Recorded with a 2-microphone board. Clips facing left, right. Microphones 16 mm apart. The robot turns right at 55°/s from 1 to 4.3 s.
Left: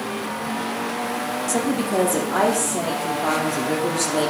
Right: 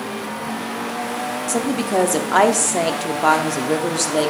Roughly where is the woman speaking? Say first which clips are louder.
Right 2 dB; behind.